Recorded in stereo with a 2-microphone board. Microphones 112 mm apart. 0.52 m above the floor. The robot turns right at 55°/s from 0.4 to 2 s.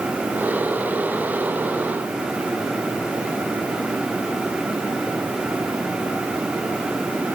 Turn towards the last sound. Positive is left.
No sound to turn to.